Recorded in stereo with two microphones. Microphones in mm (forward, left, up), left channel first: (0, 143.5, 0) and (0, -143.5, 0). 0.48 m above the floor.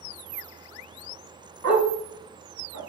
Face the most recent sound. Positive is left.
turn(degrees=-75)  # may be behind; listen again after turning